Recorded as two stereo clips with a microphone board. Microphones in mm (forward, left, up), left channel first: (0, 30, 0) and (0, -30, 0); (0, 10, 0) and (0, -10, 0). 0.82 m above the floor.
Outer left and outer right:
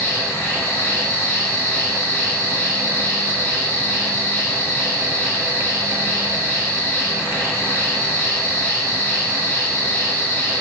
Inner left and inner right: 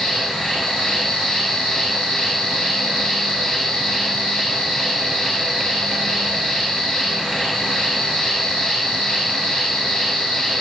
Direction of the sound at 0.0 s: 55° left (ahead or behind).